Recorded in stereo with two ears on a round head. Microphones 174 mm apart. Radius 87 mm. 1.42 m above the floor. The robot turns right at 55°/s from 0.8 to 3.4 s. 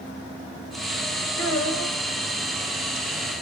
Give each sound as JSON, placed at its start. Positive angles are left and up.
{"t": 1.4, "sound": "a child speaking", "azimuth_deg": 60, "distance_m": 4.0}